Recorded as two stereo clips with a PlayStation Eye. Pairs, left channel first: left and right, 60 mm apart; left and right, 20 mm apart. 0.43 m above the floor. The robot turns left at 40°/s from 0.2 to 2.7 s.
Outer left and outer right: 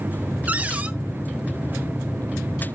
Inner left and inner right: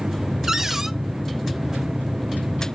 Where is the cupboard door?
25° right (ahead or behind), 0.5 m; by 0.9 s 20° right (ahead or behind), 0.5 m.